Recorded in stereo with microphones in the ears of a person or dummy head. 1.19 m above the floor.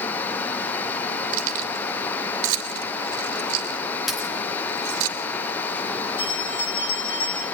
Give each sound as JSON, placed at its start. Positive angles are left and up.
{"t": 1.3, "sound": "keys jangling", "side_deg": -85, "distance_m": 2.5}
{"t": 4.1, "sound": "a dropped coin", "side_deg": 0, "distance_m": 2.5}
{"t": 6.2, "sound": "a bell", "side_deg": 60, "distance_m": 9.0}